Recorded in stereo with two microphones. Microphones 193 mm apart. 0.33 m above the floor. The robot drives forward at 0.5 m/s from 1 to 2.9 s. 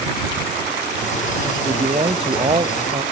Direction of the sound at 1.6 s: 30° right (ahead or behind).